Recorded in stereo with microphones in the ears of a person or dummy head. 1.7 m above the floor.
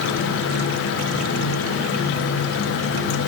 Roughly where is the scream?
I don't hear a scream.